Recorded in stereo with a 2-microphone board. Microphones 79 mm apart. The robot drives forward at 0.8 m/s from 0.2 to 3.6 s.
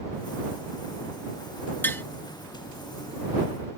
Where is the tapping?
25° left (ahead or behind).